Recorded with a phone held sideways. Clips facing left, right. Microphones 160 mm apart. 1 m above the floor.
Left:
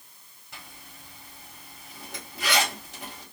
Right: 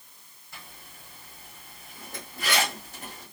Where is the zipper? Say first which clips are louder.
Left 1 dB; 75° left (ahead or behind), 3 m.